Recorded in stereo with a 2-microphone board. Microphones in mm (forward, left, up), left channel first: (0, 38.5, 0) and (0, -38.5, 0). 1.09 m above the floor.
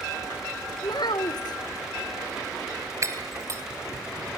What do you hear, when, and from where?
0.8 s a child speaking: 65° left (ahead or behind), 0.8 m
3.0 s breaking glass: 40° right (ahead or behind), 2.5 m